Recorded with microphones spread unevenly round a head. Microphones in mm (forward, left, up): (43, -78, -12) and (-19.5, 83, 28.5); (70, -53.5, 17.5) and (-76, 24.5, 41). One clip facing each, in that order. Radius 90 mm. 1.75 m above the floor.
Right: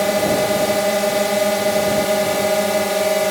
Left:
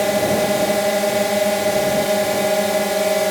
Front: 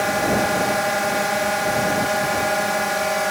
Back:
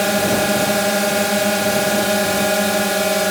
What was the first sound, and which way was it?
A drone, 160° right.